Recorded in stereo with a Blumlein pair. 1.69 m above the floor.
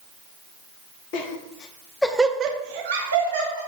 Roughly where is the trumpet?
I don't hear a trumpet.